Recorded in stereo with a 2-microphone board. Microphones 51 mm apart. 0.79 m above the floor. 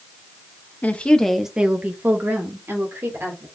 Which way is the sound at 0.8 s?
30° left (ahead or behind).